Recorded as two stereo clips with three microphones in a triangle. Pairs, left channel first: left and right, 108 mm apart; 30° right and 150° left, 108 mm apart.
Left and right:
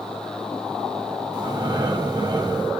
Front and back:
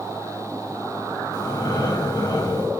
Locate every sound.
1.3 s breathing: 60° right, 1.1 m